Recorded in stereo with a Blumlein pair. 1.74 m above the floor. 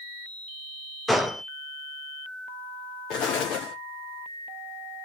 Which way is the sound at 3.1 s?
35° left.